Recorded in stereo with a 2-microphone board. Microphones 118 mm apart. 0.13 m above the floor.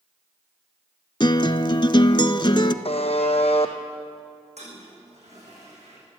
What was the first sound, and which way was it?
A guitar, 45° left (ahead or behind).